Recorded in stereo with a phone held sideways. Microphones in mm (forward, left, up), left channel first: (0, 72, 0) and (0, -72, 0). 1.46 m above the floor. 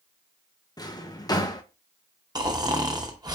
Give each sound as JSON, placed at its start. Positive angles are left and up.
{"t": 0.8, "sound": "a drawer", "side_deg": 25, "distance_m": 0.6}
{"t": 2.4, "sound": "snoring", "side_deg": -30, "distance_m": 0.8}